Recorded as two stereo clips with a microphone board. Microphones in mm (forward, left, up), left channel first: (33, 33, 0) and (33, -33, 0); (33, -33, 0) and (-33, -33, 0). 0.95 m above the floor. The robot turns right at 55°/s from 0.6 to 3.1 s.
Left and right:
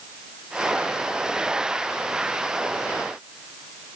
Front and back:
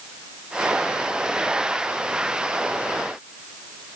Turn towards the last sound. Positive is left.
No sound to turn to.